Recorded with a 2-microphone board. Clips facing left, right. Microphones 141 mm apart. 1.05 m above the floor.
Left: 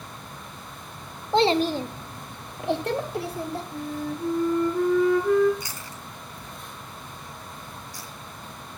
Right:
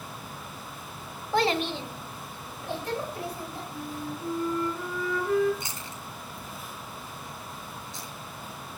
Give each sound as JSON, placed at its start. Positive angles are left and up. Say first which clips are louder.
{"t": 1.3, "sound": "a child speaking", "louder": "left 5 dB", "side_deg": 20, "distance_m": 1.2}
{"t": 3.7, "sound": "a flute", "louder": "left 5 dB", "side_deg": 75, "distance_m": 5.0}
{"t": 5.6, "sound": "chewing", "louder": "even", "side_deg": -25, "distance_m": 2.5}